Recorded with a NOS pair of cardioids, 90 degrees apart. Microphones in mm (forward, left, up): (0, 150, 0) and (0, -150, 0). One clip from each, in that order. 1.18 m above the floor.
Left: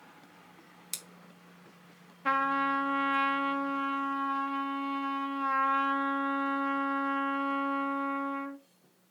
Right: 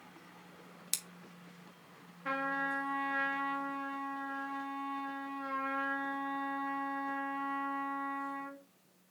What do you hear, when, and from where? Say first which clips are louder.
0.9 s scissors: right 2 dB; 20° right, 1.1 m
2.2 s a trumpet: left 7 dB; 45° left, 1.1 m